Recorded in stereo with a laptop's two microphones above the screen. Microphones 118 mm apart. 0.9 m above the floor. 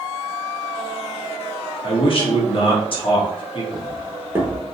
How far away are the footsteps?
About 1.2 m.